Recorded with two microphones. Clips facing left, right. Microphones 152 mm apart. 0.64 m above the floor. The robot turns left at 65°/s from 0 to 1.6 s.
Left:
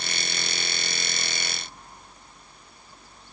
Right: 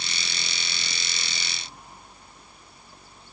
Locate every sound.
Only background noise.